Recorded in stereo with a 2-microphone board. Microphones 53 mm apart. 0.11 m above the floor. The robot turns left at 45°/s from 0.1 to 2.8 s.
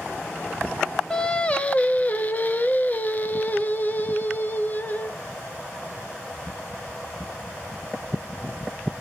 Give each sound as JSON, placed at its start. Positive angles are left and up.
{"t": 1.1, "sound": "singing", "azimuth_deg": 155, "distance_m": 0.7}